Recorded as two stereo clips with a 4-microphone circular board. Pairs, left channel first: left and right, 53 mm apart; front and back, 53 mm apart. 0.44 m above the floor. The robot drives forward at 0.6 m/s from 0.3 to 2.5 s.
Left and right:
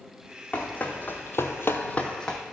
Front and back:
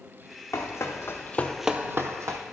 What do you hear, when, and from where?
0.5 s running footsteps: 25° left, 1.7 m; by 2.4 s 170° left, 1.3 m